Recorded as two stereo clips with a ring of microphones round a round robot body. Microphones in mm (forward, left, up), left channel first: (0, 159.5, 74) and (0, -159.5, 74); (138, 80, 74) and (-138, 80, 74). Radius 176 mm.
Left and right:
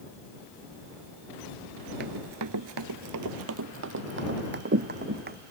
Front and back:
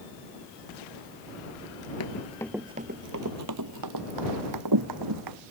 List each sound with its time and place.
2.0 s running footsteps: 35° right; by 5.4 s 150° right